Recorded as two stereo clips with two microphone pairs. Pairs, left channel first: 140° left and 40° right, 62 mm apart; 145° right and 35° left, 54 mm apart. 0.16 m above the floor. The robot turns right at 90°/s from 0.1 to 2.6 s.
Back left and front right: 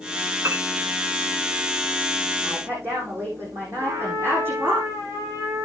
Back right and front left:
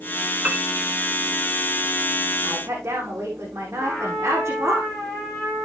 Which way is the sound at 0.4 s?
25° right.